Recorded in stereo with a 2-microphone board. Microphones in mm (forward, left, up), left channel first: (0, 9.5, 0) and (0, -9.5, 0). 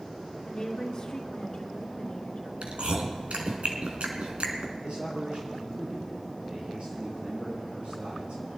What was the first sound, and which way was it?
A woman speaking, 30° left (ahead or behind).